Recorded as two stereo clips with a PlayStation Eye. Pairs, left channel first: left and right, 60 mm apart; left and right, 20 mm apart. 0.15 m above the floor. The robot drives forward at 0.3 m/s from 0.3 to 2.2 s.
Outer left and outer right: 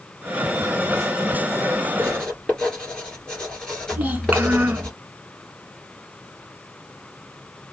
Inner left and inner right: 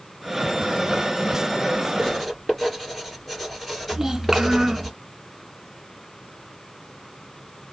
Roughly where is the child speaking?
Right.